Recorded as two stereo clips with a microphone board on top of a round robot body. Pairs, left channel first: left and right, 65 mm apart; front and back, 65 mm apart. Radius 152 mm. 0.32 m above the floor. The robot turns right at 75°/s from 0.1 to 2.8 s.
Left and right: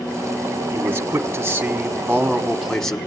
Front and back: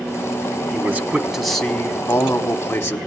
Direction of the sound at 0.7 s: 130° right.